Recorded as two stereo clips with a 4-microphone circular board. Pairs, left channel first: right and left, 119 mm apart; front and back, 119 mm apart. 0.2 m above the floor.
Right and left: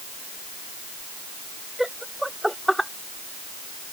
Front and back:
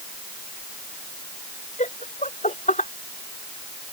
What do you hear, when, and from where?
1.8 s laughter: 5° left; by 2.9 s straight ahead